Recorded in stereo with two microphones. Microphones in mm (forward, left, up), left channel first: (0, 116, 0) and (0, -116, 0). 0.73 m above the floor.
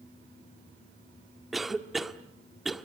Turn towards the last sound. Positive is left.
turn(degrees=0)  # may be behind; listen again after turning